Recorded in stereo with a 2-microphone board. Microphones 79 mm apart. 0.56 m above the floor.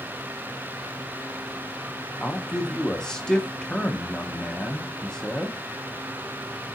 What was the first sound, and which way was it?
A man speaking, 10° left (ahead or behind).